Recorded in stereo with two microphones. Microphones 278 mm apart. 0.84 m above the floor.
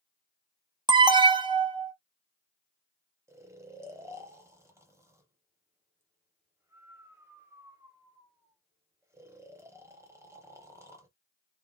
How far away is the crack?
I don't hear a crack.